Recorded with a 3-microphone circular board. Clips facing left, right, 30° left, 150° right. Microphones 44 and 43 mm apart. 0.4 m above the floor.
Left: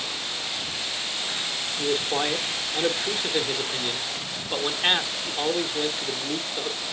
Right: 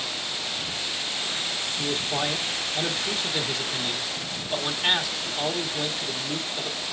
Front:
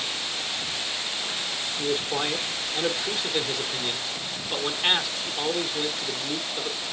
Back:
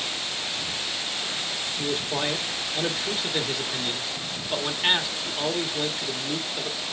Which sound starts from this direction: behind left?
A man speaking, at 1.8 s.